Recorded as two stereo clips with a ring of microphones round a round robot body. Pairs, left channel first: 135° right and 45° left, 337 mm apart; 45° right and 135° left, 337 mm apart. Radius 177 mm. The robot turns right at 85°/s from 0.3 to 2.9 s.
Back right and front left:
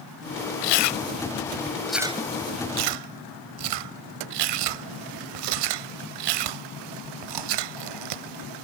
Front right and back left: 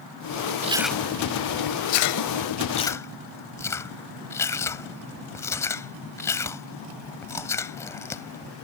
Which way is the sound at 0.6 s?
155° right.